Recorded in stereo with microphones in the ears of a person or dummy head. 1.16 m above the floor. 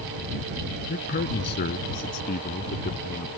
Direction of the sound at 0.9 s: 45° left (ahead or behind).